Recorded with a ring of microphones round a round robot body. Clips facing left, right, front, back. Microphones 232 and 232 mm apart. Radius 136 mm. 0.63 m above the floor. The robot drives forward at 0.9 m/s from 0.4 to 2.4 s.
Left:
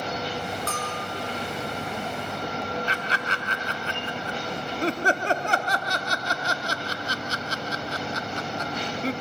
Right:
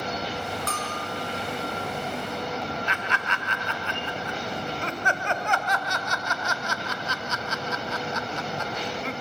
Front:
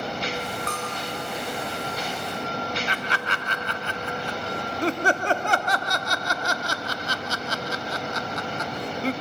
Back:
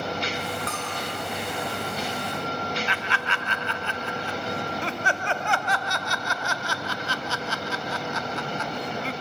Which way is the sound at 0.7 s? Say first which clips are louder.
Left 1 dB, front 1 dB; 110° right.